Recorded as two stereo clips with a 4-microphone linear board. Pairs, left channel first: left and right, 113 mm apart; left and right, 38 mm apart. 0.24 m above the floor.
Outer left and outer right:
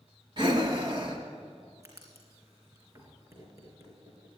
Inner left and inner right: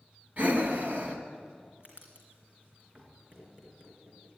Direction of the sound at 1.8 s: 30° right (ahead or behind).